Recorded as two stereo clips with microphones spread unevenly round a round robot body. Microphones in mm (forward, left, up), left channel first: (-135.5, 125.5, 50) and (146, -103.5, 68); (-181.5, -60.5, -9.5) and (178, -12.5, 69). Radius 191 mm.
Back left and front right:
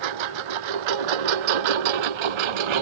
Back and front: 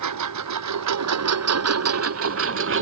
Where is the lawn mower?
35° right; by 2.8 s 50° right.